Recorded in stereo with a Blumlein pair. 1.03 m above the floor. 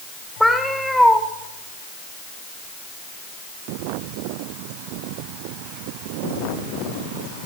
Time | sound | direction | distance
0.4 | a cat meowing | straight ahead | 1.7 m